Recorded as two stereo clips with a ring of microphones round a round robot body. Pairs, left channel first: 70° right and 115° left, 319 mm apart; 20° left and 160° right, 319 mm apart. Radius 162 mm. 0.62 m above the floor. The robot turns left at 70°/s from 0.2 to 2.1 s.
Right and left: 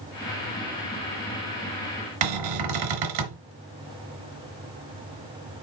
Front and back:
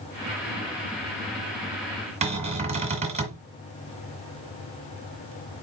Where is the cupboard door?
130° left, 1.8 m.